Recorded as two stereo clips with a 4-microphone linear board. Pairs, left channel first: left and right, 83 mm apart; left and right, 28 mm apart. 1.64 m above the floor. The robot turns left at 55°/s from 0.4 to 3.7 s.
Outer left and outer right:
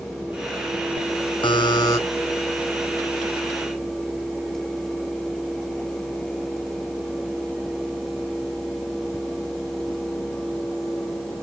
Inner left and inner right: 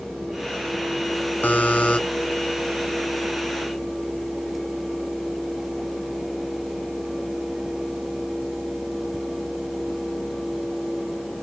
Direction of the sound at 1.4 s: 70° left.